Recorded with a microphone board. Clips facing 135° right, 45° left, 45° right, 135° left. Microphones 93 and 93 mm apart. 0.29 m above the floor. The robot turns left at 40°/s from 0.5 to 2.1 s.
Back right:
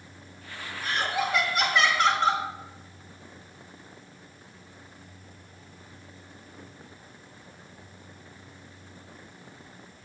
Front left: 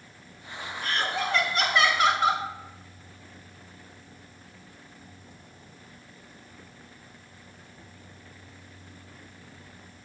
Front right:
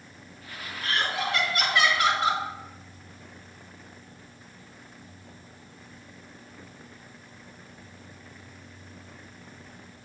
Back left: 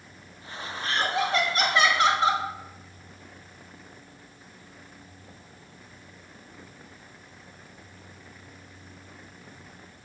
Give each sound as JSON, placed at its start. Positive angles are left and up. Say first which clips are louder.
{"t": 0.8, "sound": "laughter", "louder": "back right 1 dB, back left 2 dB", "azimuth_deg": 170, "distance_m": 1.5}